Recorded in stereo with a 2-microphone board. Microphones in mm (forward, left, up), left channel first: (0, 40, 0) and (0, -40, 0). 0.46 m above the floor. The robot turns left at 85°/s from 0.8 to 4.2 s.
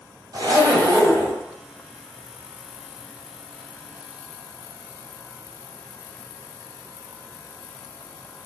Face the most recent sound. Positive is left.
turn(degrees=-35)